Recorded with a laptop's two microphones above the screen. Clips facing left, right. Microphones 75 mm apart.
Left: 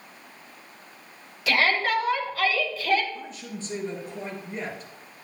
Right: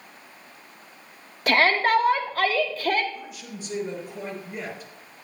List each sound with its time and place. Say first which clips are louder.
1.5 s a shout: right 3 dB; 50° right (ahead or behind), 1.2 m
3.1 s a man speaking: left 1 dB; 10° right (ahead or behind), 4 m